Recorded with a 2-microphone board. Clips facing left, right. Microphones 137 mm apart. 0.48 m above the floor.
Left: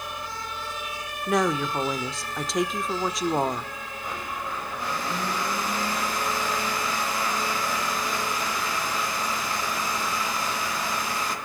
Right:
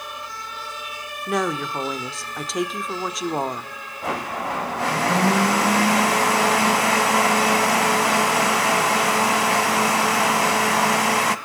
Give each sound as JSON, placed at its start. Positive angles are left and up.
{"t": 1.3, "sound": "a woman speaking", "side_deg": 0, "distance_m": 0.8}
{"t": 4.0, "sound": "a blender", "side_deg": -75, "distance_m": 0.9}